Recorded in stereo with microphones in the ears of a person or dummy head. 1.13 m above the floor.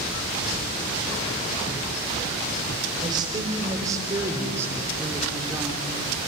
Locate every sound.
3.0 s a woman speaking: 25° right (ahead or behind), 5 m; by 6.3 s 5° right (ahead or behind), 4 m